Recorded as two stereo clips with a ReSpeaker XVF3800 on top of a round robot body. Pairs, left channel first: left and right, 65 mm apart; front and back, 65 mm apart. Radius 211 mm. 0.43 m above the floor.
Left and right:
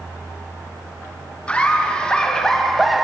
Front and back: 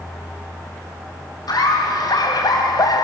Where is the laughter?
20° left, 4.5 m; by 3.0 s straight ahead, 2.5 m.